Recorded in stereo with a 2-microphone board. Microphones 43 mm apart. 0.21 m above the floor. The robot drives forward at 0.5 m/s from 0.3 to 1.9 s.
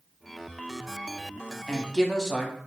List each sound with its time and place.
1.7 s a woman speaking: 15° left (ahead or behind), 1.1 m